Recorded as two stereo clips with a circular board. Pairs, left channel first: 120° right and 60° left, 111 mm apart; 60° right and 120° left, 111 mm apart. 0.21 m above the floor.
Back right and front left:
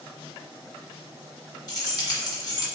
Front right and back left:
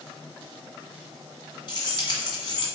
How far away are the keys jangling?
About 1.5 m.